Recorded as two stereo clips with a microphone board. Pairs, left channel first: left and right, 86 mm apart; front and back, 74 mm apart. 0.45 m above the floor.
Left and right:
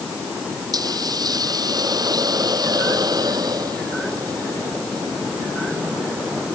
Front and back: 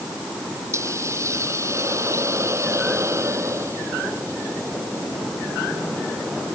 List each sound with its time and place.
0.7 s a hiss: 130° right